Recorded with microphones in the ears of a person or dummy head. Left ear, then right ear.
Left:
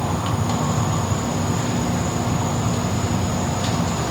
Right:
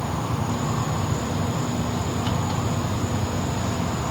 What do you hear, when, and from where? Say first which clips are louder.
0.0 s an insect: left 4 dB; 75° left (ahead or behind), 3 m